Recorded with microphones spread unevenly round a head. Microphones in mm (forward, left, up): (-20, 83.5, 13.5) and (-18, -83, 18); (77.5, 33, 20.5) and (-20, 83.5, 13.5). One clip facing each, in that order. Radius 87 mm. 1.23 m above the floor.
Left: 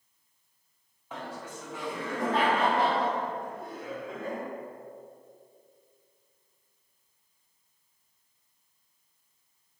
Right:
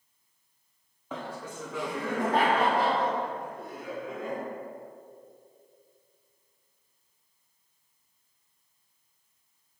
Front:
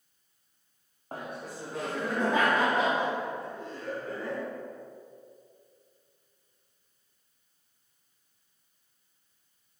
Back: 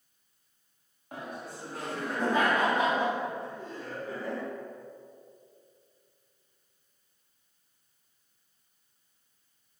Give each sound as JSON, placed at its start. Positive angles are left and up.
{"t": 1.1, "sound": "laughter", "azimuth_deg": -95, "distance_m": 0.8}